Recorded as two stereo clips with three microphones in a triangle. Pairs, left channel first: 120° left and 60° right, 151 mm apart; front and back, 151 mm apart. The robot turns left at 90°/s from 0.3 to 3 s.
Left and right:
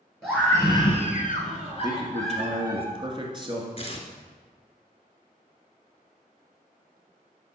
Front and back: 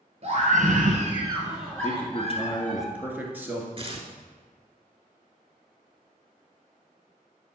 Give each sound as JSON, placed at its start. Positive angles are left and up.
{"t": 0.2, "sound": "a scream", "azimuth_deg": -150, "distance_m": 2.0}
{"t": 1.8, "sound": "a man speaking", "azimuth_deg": 0, "distance_m": 1.6}
{"t": 3.8, "sound": "tearing paper", "azimuth_deg": 145, "distance_m": 1.0}